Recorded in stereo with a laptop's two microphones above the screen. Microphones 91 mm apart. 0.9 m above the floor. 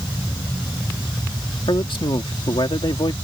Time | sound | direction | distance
1.7 | a man speaking | 70° left (ahead or behind) | ?